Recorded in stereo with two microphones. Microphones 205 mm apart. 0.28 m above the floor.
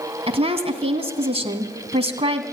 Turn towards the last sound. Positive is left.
turn(degrees=-30)  # may be behind; listen again after turning